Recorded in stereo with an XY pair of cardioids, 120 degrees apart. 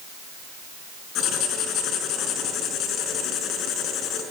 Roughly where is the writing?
Left.